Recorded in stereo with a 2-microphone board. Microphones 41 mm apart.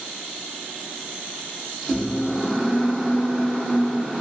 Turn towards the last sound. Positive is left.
turn(degrees=-5)  # may be behind; listen again after turning